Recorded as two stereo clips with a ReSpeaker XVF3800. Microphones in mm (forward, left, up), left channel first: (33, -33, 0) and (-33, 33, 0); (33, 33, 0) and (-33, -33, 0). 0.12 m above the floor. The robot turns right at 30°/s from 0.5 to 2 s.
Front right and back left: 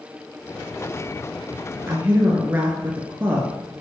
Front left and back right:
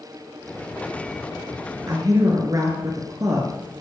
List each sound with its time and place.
1.9 s a woman speaking: 170° right, 2 m; by 3.6 s 165° right, 2 m